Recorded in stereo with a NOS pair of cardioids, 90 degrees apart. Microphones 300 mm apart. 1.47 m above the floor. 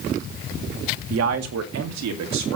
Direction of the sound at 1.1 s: 55° right.